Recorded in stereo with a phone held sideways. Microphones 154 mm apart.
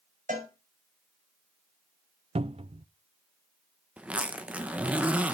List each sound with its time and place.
0.3 s a cowbell: 55° right (ahead or behind), 6 m
2.4 s a cupboard door: 40° right (ahead or behind), 0.6 m
4.0 s a zipper: 10° right (ahead or behind), 1.0 m